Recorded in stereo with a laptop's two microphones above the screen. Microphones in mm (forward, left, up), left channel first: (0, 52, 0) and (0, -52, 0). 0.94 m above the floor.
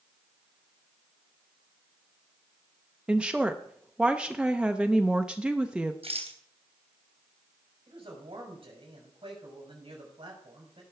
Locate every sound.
3.1 s a woman speaking: 10° right (ahead or behind), 0.6 m
6.0 s a rattle: 70° right (ahead or behind), 3 m
7.9 s a man speaking: 55° right (ahead or behind), 6 m